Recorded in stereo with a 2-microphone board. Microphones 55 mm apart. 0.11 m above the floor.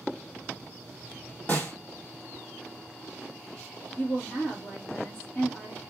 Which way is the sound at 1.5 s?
35° left (ahead or behind).